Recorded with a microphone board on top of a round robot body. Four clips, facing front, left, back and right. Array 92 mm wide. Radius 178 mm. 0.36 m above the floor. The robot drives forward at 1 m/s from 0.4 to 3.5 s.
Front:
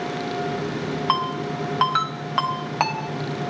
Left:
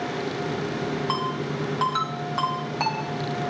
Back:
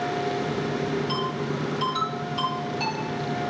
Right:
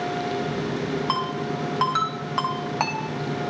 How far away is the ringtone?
About 3.5 m.